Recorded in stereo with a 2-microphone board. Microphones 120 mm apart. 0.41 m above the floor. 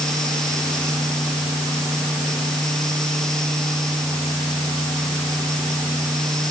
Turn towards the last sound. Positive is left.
No sound to turn to.